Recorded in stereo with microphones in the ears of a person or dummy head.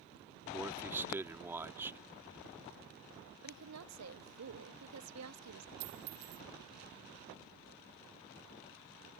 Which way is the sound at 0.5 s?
10° right (ahead or behind).